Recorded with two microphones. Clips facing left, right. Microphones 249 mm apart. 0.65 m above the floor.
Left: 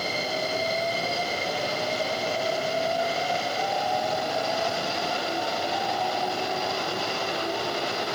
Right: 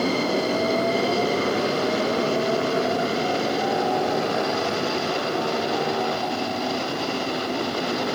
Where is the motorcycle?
85° right; by 8.2 s 70° right (ahead or behind).